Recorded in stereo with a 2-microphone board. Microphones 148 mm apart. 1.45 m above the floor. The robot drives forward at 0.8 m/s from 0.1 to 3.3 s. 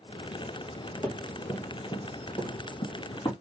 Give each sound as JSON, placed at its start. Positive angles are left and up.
{"t": 1.0, "sound": "running footsteps", "side_deg": 20, "distance_m": 2.5}